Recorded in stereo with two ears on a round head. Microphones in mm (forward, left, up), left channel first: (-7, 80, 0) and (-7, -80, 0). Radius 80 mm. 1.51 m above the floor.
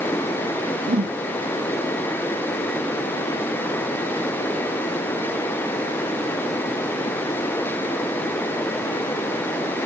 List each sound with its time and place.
0.9 s a whoosh: 40° right (ahead or behind), 0.7 m